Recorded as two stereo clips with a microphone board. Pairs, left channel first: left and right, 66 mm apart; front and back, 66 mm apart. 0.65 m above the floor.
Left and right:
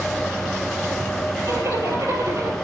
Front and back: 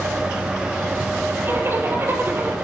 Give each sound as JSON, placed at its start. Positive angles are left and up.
{"t": 1.4, "sound": "a zipper", "azimuth_deg": -125, "distance_m": 3.5}